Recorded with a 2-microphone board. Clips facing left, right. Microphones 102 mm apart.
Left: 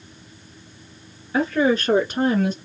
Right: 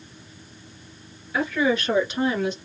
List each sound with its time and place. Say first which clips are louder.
1.3 s a woman speaking: left 3 dB; 35° left (ahead or behind), 1.8 m; by 2.5 s 45° left (ahead or behind), 1.7 m